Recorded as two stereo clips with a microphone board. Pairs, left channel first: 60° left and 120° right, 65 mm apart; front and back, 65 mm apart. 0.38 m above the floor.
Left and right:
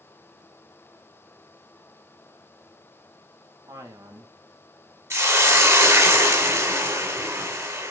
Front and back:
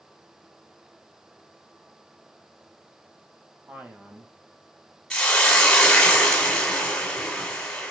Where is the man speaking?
115° right, 1.8 m.